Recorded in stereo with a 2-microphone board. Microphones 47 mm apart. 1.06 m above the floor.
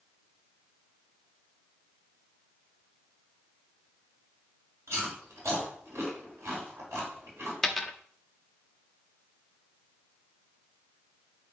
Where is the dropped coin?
10° left (ahead or behind), 0.7 m.